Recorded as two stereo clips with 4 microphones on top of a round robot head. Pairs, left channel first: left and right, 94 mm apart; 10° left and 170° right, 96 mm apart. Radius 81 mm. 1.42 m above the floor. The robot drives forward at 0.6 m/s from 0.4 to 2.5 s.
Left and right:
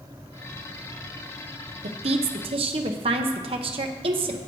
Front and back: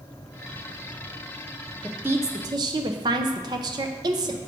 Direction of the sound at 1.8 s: 90° right.